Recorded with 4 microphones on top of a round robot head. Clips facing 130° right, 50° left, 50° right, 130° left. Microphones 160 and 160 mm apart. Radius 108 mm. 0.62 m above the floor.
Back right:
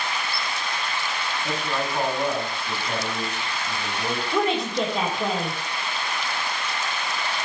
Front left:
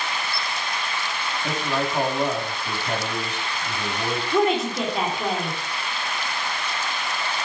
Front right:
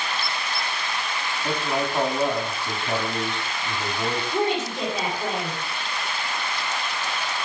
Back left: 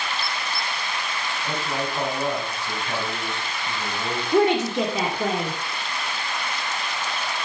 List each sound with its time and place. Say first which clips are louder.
1.4 s a man speaking: front left 3 dB, front right 3 dB; 10° left, 5 m
4.3 s a woman speaking: front left 3 dB, back left 8 dB; 135° left, 2 m